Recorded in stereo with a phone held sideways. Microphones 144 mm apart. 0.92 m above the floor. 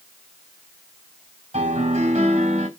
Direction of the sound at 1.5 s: 55° right (ahead or behind).